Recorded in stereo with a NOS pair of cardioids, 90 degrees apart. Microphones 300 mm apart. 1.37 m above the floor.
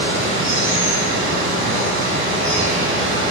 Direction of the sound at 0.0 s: 40° right.